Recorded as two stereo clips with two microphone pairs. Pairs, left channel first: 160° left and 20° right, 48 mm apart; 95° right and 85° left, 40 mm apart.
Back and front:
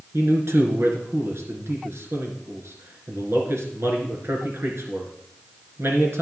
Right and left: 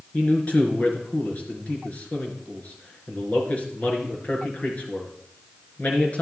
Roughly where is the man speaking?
Ahead right.